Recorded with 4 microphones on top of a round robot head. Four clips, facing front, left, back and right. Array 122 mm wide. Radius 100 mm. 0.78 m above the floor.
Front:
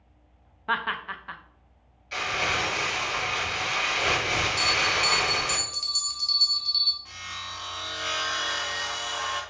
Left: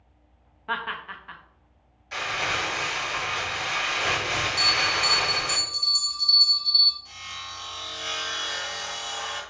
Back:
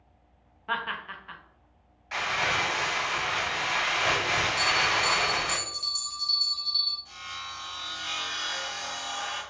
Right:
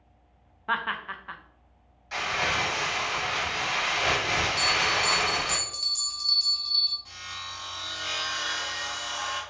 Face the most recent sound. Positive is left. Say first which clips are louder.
# left 1 dB, front 1 dB
turn(degrees=-20)